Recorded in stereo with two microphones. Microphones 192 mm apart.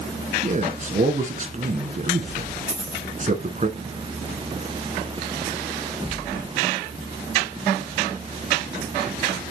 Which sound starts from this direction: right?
A man speaking, at 0.4 s.